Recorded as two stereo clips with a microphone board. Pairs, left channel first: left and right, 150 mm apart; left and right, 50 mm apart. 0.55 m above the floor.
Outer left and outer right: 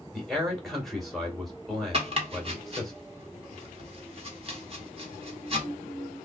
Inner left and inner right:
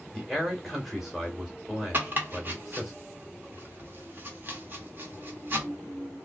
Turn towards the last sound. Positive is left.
turn(degrees=-40)  # may be behind; listen again after turning